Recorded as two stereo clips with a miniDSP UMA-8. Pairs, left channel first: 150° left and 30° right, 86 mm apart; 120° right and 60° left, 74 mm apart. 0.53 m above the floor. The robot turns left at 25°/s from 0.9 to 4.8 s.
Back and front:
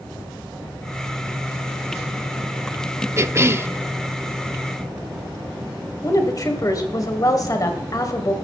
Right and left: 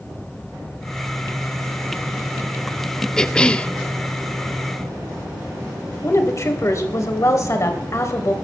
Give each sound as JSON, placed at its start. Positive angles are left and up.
{"t": 3.2, "sound": "a cough", "azimuth_deg": -50, "distance_m": 0.7}
{"t": 6.0, "sound": "a woman speaking", "azimuth_deg": -165, "distance_m": 2.5}